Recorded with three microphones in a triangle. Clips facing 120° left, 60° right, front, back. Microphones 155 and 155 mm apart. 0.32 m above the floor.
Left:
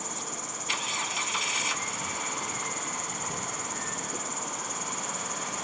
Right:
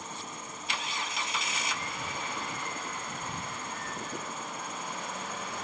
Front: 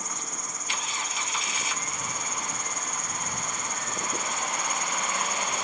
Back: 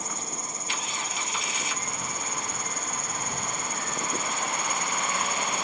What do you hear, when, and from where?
0.0 s an insect: 115° left